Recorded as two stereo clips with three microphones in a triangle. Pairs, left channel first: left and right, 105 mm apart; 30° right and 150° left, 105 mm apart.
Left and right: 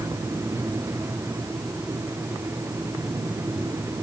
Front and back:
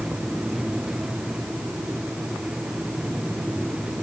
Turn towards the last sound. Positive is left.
No sound to turn to.